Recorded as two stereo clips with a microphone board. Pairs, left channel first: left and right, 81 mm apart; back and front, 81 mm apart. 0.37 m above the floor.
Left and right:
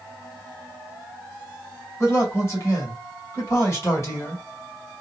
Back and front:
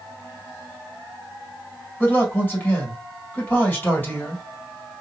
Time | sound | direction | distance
2.0 | a man speaking | 125° left | 2 m